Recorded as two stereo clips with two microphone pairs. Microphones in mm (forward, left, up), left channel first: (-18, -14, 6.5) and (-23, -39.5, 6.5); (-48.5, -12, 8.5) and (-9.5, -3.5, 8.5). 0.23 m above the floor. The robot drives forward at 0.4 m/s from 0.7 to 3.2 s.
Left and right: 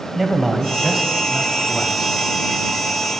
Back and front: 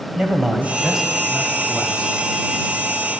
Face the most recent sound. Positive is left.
turn(degrees=-165)